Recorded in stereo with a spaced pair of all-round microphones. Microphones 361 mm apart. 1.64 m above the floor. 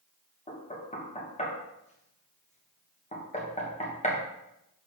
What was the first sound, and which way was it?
Knocking, 20° left (ahead or behind).